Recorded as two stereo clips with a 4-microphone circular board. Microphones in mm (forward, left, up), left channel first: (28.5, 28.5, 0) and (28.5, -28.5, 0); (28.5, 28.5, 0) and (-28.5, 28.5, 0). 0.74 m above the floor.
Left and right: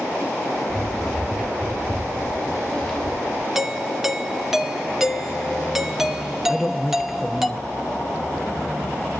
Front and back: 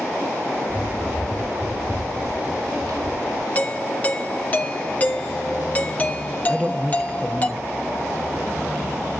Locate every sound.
0.7 s running footsteps: 165° right, 5 m; by 3.5 s straight behind, 5.5 m
3.5 s a doorbell: 15° right, 1.0 m
6.5 s a man speaking: 175° right, 0.8 m